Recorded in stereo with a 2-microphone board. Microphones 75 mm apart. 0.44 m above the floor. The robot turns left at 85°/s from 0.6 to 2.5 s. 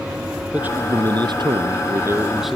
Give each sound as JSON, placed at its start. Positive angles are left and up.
{"t": 0.5, "sound": "a man speaking", "azimuth_deg": -20}